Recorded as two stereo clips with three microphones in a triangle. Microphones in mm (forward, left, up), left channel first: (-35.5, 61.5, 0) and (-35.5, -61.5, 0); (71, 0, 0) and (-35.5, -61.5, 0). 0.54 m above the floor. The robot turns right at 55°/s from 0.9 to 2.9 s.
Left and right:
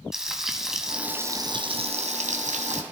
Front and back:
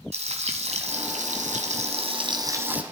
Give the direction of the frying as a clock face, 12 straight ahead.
6 o'clock.